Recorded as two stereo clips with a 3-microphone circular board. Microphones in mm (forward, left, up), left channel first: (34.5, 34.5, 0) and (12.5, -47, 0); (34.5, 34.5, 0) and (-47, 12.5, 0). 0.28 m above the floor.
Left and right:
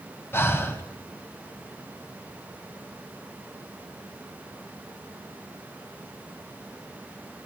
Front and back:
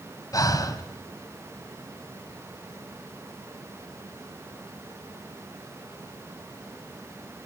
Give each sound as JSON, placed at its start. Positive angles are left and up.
{"t": 0.3, "sound": "breathing", "azimuth_deg": 25, "distance_m": 2.0}